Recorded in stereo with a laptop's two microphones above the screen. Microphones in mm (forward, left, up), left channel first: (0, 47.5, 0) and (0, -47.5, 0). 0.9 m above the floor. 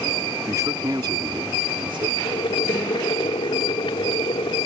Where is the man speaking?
35° right (ahead or behind); by 2.1 s 65° right (ahead or behind).